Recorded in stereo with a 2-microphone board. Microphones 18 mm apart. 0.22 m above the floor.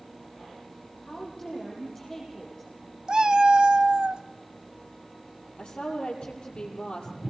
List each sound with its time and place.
1.0 s a woman speaking: 25° left (ahead or behind), 7 m
3.1 s a cat meowing: 55° right (ahead or behind), 0.9 m
5.6 s a woman speaking: 65° left (ahead or behind), 6.5 m